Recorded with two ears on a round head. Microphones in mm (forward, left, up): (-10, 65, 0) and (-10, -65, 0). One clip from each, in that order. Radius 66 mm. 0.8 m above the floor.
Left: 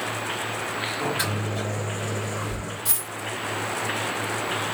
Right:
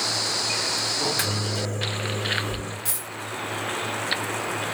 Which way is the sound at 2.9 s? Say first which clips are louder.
Left 1 dB; 15° right (ahead or behind).